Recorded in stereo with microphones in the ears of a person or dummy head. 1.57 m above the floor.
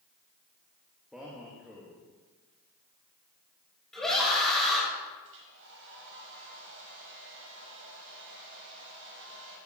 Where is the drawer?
I don't hear a drawer.